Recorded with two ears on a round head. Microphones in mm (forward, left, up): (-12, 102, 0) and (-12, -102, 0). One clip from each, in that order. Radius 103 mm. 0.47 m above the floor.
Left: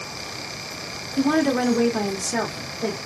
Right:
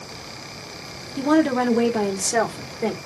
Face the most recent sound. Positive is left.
turn(degrees=-20)  # may be behind; listen again after turning